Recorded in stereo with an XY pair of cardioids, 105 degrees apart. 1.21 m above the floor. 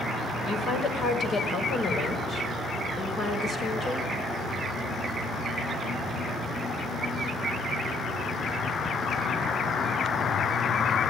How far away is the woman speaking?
About 5.5 m.